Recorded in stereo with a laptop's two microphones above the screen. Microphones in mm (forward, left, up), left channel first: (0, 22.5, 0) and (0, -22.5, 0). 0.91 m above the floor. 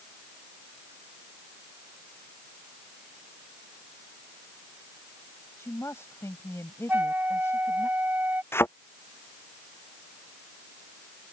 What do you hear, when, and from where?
5.6 s a woman speaking: 85° left
6.9 s a flute: 45° right (ahead or behind)
8.5 s a thud: 65° left (ahead or behind)